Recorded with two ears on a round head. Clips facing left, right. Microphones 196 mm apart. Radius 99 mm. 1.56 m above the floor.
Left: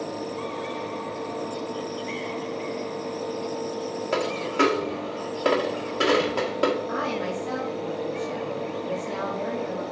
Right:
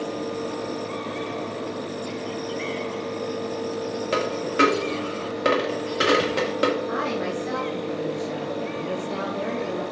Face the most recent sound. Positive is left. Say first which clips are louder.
# right 2 dB
turn(degrees=-30)  # may be behind; listen again after turning